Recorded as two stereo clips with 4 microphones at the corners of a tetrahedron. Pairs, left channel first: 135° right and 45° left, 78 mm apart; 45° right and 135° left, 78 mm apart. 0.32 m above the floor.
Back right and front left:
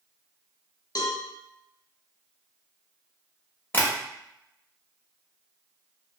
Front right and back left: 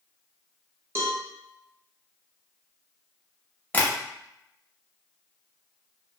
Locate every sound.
0.9 s a cowbell: 170° right, 0.6 m
3.7 s tapping: 90° right, 0.7 m